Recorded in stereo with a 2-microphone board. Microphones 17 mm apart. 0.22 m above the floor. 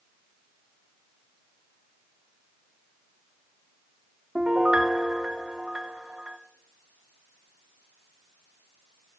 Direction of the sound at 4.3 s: 55° right (ahead or behind).